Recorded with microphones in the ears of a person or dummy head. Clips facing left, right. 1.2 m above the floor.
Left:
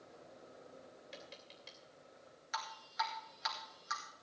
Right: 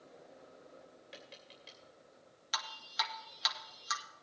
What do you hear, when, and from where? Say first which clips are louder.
1.1 s tapping: even; centre (ahead or behind), 2.5 m
2.5 s dripping: left 1 dB; 55° right (ahead or behind), 2 m